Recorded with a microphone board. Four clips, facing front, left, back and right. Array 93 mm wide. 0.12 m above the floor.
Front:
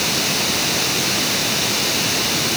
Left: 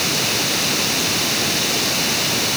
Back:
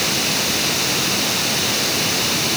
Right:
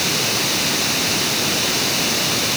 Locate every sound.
Only background noise.